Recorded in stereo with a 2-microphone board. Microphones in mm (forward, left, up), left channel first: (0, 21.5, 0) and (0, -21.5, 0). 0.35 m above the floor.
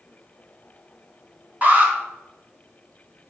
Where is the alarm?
35° right (ahead or behind), 5 m.